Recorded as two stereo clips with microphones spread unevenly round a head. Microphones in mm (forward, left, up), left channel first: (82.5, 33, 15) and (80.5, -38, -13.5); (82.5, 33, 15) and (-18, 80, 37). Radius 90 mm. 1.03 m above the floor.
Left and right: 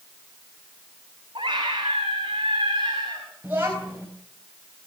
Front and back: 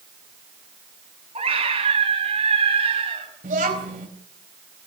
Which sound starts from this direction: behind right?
A scream, at 1.4 s.